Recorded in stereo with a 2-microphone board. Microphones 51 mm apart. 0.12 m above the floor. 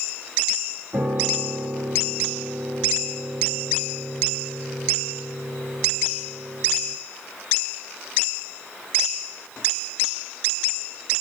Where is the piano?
75° right (ahead or behind), 6 m.